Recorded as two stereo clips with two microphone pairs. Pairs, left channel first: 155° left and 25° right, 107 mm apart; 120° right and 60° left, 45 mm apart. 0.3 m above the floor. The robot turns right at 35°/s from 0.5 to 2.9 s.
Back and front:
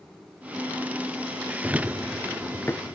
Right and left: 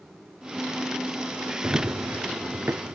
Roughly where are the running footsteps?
Ahead left.